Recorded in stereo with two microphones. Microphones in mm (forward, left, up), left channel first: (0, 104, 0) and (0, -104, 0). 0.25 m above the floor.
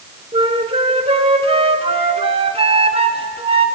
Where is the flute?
30° right (ahead or behind), 0.8 m.